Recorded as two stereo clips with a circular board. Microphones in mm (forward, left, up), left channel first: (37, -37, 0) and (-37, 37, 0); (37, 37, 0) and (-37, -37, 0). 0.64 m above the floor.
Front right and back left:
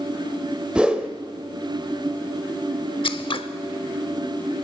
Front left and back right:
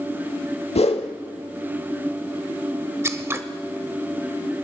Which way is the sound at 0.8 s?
55° left.